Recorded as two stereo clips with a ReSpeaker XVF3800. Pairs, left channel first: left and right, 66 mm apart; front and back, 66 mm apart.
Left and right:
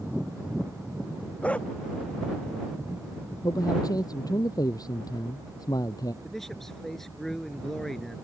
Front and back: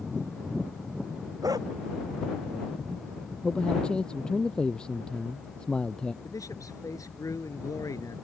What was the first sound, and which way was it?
A dog barking, 160° left.